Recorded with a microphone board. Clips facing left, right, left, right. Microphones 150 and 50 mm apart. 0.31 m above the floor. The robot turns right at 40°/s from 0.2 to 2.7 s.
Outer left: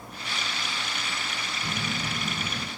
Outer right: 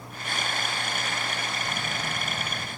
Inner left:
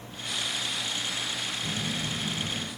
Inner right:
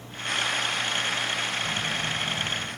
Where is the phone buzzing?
65° left, 4 m; by 2.7 s 110° left, 4 m.